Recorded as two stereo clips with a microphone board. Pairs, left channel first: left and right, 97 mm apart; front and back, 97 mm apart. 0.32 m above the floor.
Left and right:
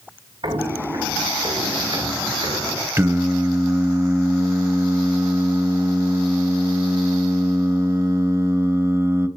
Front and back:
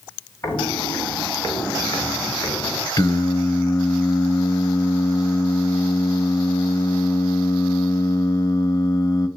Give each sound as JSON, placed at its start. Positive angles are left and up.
{"t": 0.4, "sound": "footsteps", "azimuth_deg": -55, "distance_m": 5.0}
{"t": 3.0, "sound": "singing", "azimuth_deg": -35, "distance_m": 1.5}